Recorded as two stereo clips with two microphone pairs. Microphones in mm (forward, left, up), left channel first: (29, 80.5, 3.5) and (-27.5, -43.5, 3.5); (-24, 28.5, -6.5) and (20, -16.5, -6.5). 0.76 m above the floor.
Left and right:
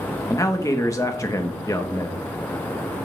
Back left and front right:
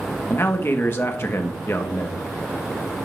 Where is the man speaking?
115° left, 0.8 m.